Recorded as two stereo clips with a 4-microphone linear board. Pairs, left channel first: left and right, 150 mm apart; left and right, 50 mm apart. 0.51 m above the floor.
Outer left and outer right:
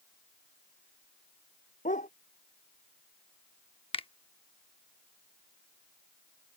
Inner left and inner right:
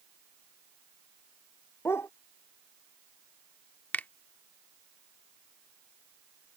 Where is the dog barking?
60° left (ahead or behind).